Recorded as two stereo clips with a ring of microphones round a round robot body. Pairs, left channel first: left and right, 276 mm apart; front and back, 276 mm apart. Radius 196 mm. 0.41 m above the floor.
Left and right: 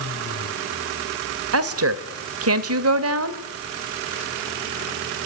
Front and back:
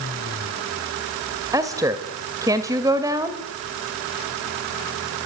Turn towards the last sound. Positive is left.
turn(degrees=-105)